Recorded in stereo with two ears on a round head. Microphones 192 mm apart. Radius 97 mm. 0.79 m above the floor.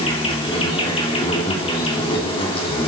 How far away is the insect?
About 3.5 m.